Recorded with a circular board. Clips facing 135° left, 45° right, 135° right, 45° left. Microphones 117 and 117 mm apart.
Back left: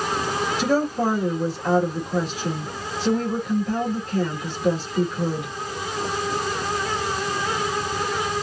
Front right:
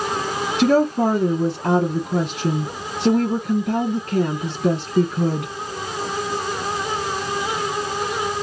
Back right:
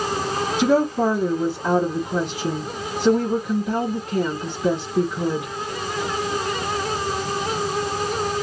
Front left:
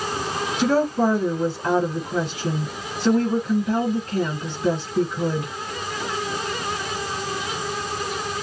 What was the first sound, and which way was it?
A woman speaking, 55° right.